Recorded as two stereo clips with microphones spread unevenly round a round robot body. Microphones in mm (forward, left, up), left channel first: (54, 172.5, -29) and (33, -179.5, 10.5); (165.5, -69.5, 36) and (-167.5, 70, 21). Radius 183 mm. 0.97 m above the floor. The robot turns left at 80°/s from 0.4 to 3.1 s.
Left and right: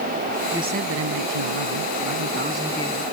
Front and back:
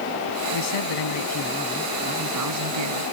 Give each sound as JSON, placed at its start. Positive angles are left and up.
{"t": 0.5, "sound": "a man speaking", "azimuth_deg": -5}